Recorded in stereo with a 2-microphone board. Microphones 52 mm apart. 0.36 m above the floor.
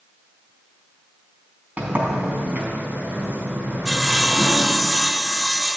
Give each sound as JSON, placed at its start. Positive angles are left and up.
{"t": 1.8, "sound": "a sliding door", "side_deg": -25, "distance_m": 3.5}
{"t": 3.9, "sound": "sawing", "side_deg": -10, "distance_m": 1.0}